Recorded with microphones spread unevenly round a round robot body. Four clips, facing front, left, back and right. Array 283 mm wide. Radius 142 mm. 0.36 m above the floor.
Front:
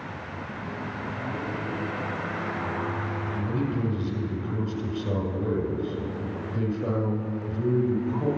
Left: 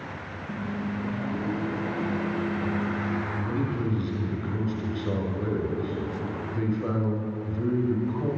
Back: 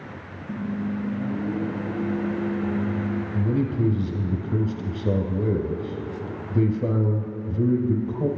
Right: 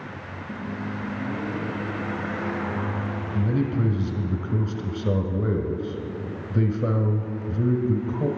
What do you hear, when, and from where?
0.5 s a microwave: 140° left, 3 m
3.3 s a man speaking: 140° right, 1.8 m